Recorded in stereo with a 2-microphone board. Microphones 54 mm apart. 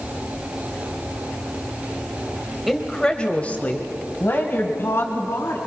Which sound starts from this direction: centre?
A woman speaking, at 2.7 s.